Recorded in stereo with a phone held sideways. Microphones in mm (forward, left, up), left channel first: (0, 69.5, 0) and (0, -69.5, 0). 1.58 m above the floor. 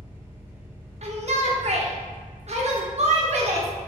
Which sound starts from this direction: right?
A shout, at 1.0 s.